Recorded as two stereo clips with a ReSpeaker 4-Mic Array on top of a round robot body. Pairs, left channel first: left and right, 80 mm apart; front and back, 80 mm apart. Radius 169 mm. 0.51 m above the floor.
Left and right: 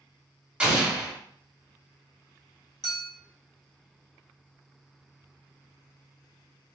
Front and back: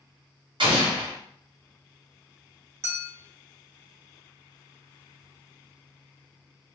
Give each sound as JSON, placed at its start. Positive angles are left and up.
{"t": 0.6, "sound": "an explosion", "azimuth_deg": -165, "distance_m": 1.3}
{"t": 2.8, "sound": "a clink", "azimuth_deg": 125, "distance_m": 1.1}